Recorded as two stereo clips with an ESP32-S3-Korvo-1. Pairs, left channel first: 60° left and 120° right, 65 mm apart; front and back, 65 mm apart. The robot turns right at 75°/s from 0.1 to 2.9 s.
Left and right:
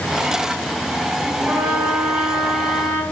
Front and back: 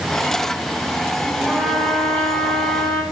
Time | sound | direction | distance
1.5 | a trumpet | 100° right | 3 m